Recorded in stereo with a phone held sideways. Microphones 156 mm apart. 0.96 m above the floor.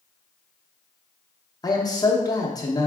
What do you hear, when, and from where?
1.6 s a man speaking: 25° left (ahead or behind), 0.6 m